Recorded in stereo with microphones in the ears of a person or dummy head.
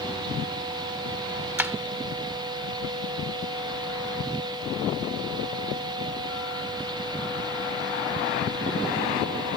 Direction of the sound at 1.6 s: 10° right (ahead or behind).